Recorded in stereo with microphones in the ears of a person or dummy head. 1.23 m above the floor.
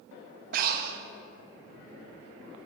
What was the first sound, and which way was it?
Breathing, 55° right (ahead or behind).